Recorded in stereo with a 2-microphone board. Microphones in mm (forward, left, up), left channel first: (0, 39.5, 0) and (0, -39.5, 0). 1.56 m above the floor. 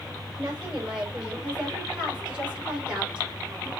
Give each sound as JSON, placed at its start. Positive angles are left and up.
{"t": 0.4, "sound": "a woman speaking", "side_deg": -20, "distance_m": 6.5}